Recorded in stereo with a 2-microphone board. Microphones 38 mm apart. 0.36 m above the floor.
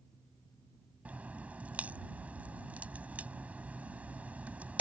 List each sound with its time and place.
1.1 s a crack: 45° right (ahead or behind)